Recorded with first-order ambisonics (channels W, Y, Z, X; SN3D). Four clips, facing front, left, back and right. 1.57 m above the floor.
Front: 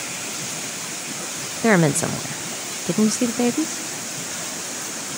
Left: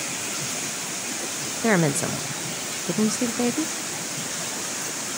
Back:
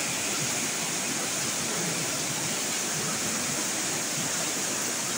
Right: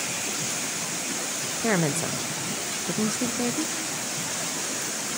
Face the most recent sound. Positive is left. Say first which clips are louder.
# left 4 dB, front 12 dB
turn(degrees=15)